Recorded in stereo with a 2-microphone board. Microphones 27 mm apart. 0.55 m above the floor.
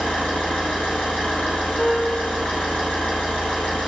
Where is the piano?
55° left (ahead or behind), 1.0 m.